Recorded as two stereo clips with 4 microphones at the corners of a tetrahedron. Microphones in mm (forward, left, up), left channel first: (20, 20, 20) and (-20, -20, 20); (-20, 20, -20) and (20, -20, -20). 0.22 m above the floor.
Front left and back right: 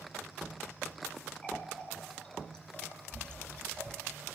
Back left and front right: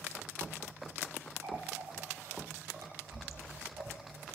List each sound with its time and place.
1.4 s a running tap: 30° right, 3.5 m